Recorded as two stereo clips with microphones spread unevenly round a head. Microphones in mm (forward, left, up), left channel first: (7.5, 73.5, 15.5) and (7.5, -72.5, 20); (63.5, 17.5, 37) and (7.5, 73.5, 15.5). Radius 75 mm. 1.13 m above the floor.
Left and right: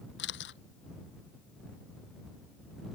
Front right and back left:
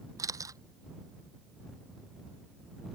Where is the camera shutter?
90° left.